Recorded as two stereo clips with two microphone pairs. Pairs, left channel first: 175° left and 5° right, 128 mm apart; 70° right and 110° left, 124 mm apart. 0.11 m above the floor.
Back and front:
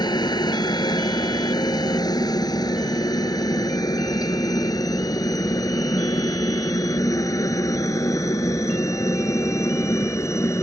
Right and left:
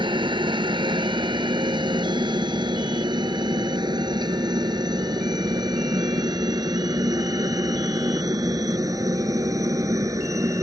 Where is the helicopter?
135° left.